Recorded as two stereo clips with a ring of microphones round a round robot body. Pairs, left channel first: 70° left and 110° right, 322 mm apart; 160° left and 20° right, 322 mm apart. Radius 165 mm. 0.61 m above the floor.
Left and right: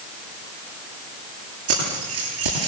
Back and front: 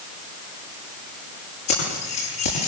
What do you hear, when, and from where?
1.7 s keys jangling: 160° right, 9 m